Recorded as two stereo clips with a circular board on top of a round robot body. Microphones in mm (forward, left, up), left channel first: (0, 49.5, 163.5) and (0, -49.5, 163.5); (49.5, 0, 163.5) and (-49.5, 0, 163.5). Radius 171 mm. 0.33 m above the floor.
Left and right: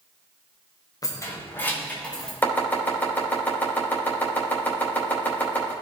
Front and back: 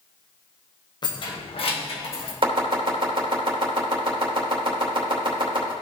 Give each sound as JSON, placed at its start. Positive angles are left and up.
{"t": 1.0, "sound": "keys jangling", "azimuth_deg": 40, "distance_m": 1.7}
{"t": 2.4, "sound": "chopping", "azimuth_deg": 160, "distance_m": 3.0}